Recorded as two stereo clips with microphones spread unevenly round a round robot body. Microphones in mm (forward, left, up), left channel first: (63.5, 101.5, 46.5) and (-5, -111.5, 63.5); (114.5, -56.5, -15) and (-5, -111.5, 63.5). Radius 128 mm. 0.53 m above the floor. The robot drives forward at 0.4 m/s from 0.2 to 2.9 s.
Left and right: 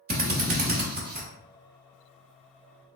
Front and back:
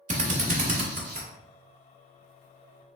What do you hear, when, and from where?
0.1 s a drill: 110° right, 1.2 m; by 1.3 s 135° right, 1.3 m